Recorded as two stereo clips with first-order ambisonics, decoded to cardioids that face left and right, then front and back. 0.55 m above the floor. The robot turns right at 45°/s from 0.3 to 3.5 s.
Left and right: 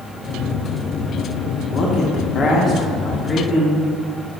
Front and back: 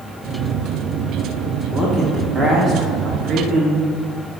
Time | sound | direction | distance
1.7 | a man speaking | 80° left | 1.0 m